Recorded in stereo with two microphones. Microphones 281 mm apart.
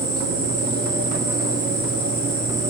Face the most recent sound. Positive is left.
turn(degrees=-50)  # may be behind; listen again after turning